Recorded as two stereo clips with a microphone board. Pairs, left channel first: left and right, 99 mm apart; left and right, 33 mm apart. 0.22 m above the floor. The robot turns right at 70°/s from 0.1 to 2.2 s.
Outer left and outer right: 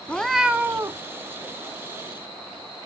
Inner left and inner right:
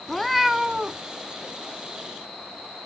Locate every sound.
0.1 s a cat meowing: 165° left, 0.6 m; by 1.0 s 130° right, 0.6 m